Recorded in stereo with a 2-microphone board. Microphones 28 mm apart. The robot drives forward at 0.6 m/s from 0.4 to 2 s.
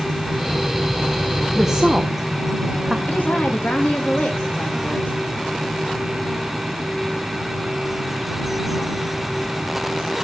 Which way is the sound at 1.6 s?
10° right (ahead or behind).